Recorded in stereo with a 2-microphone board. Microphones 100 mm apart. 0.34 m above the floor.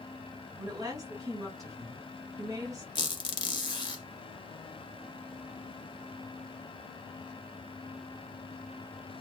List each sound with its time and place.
0.6 s a woman speaking: 35° right (ahead or behind), 1.1 m
3.0 s a squeak: 45° left (ahead or behind), 0.6 m